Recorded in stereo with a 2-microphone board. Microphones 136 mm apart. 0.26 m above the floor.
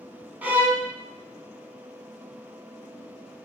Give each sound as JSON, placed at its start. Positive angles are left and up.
{"t": 0.4, "sound": "a violin", "side_deg": -10, "distance_m": 1.1}